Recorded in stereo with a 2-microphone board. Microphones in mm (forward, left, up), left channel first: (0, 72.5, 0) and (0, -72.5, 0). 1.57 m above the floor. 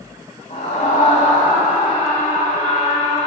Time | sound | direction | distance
0.5 | a scream | 55° left (ahead or behind) | 1.2 m